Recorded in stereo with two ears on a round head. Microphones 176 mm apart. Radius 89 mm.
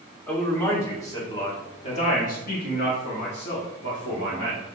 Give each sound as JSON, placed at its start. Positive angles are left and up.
{"t": 0.3, "sound": "a man speaking", "side_deg": 5, "distance_m": 1.9}